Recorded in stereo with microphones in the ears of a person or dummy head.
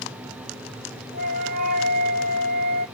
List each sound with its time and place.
1.1 s a flute: 50° right (ahead or behind), 1.0 m